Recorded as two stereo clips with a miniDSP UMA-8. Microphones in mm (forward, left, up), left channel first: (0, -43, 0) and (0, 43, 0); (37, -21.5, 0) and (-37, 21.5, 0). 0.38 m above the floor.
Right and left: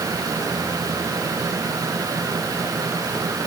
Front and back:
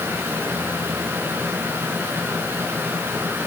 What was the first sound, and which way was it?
Only background noise.